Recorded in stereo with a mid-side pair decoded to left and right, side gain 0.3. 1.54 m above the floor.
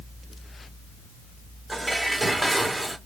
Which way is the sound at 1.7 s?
10° right.